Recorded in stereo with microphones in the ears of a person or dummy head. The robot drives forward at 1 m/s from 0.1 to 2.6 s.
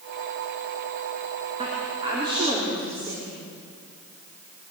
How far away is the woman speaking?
About 3.5 m.